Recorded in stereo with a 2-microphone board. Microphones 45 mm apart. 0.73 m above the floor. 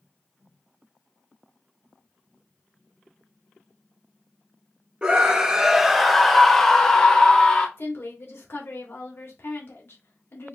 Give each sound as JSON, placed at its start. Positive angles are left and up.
{"t": 5.0, "sound": "a scream", "side_deg": -20, "distance_m": 0.7}
{"t": 7.8, "sound": "a woman speaking", "side_deg": 65, "distance_m": 1.4}